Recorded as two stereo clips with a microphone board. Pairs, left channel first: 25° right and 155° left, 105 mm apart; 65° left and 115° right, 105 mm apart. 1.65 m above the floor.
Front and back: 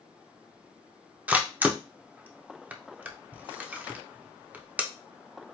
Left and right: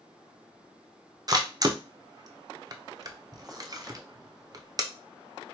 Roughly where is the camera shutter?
Behind right.